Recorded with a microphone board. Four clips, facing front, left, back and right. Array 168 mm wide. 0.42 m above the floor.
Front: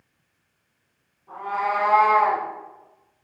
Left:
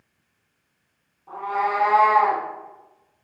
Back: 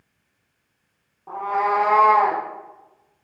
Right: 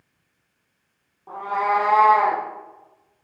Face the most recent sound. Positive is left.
turn(degrees=-150)